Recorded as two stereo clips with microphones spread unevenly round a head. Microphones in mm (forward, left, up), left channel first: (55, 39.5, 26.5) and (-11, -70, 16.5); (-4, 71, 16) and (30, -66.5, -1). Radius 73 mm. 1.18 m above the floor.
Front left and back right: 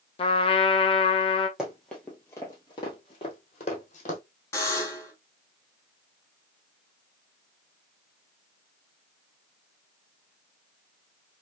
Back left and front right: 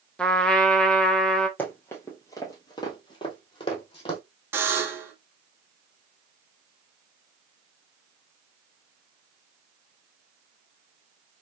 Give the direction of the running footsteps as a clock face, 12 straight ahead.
7 o'clock.